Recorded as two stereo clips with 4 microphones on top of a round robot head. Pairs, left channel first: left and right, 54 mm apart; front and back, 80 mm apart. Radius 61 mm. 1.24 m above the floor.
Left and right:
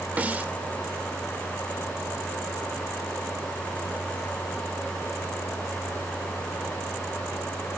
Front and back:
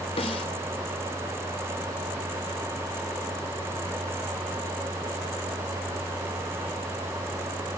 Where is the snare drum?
30° right, 1.9 m.